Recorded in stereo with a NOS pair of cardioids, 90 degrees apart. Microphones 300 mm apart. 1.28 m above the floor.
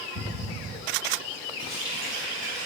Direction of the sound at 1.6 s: 40° right.